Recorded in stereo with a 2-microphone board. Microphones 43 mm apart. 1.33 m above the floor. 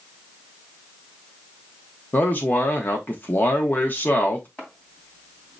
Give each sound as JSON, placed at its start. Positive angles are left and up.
{"t": 2.1, "sound": "a man speaking", "side_deg": 45, "distance_m": 0.9}
{"t": 4.6, "sound": "chopping", "side_deg": 25, "distance_m": 2.5}